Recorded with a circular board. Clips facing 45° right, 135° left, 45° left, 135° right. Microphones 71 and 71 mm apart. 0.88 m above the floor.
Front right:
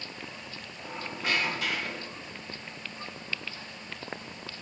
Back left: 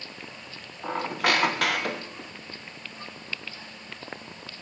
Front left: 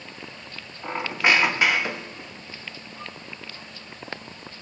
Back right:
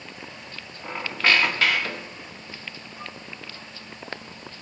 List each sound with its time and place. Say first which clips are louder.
0.8 s a squeak: back left 8 dB, front left 1 dB; 120° left, 0.7 m